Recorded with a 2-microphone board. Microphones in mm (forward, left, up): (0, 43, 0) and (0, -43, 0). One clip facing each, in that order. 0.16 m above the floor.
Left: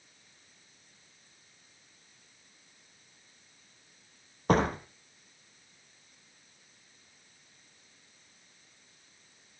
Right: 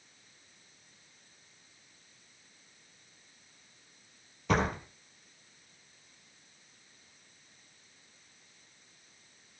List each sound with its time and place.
4.5 s a door slam: 45° left (ahead or behind), 3 m